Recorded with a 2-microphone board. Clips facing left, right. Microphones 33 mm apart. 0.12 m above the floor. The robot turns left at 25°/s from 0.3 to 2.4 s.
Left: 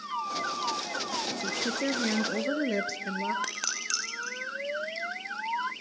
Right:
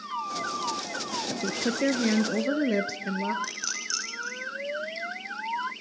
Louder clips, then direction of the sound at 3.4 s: Even; 50° left (ahead or behind).